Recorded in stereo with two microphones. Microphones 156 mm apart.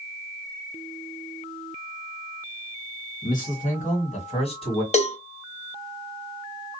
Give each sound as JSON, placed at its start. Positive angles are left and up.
{"t": 3.2, "sound": "a man speaking", "side_deg": 60, "distance_m": 2.5}
{"t": 4.9, "sound": "a cowbell", "side_deg": 45, "distance_m": 0.9}